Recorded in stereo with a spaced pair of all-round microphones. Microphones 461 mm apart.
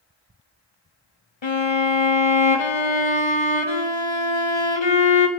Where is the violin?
75° left (ahead or behind), 1.2 m.